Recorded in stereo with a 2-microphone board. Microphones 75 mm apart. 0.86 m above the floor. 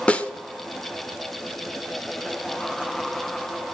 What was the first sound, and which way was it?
A snare drum, 15° left (ahead or behind).